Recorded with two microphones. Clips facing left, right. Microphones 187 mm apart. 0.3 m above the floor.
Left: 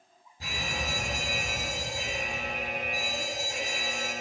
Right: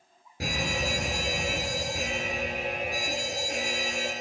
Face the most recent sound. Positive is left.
turn(degrees=-75)  # may be behind; listen again after turning